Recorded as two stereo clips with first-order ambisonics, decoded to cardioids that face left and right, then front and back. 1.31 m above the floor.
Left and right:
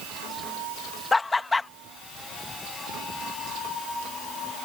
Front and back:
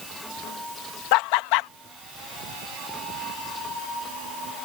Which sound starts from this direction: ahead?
Laughter, at 1.1 s.